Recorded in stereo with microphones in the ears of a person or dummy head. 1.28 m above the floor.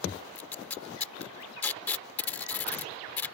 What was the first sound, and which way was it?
Tape being pulled, 10° left (ahead or behind).